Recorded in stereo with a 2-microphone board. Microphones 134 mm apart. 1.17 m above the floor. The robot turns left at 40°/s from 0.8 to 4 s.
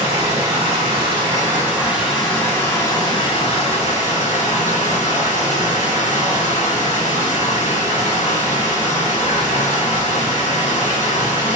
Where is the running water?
130° right, 1.0 m; by 11.6 s 100° left, 1.0 m.